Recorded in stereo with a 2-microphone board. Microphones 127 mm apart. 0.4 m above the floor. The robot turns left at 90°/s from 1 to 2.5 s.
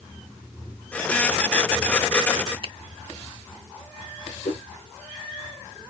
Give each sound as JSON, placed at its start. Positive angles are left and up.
{"t": 2.6, "sound": "a finger snap", "side_deg": -45, "distance_m": 1.2}
{"t": 4.5, "sound": "a whoosh", "side_deg": 90, "distance_m": 3.0}